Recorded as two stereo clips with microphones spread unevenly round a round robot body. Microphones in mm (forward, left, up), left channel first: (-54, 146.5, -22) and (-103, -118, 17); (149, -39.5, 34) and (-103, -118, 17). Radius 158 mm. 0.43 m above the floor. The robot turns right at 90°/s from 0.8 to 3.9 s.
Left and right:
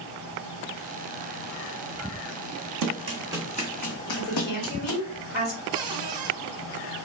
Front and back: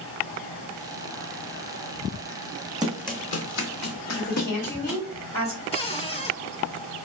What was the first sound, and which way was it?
Running footsteps, 85° right.